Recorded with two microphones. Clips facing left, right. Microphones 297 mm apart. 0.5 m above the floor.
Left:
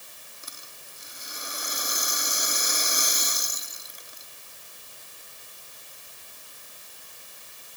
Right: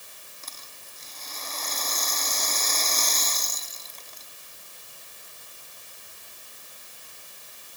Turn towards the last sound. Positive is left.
turn(degrees=15)  # may be behind; listen again after turning